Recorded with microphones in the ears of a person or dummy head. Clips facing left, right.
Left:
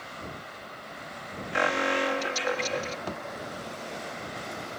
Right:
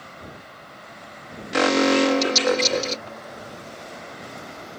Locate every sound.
1.5 s an alarm: 55° right (ahead or behind)
3.1 s a thud: 65° left (ahead or behind)